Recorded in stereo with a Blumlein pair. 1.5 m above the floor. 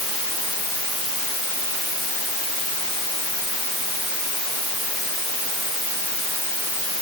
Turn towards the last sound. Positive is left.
No sound to turn to.